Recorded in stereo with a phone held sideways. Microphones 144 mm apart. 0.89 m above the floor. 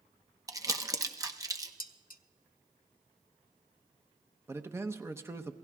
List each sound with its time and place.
0.5 s crumpling: 25° right (ahead or behind), 0.9 m
1.8 s dishes clattering: 75° left (ahead or behind), 0.6 m
4.5 s a man speaking: 15° right (ahead or behind), 0.7 m